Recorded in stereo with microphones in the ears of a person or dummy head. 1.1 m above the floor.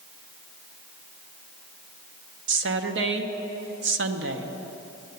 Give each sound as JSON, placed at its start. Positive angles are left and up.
{"t": 2.5, "sound": "a woman speaking", "side_deg": -55, "distance_m": 0.9}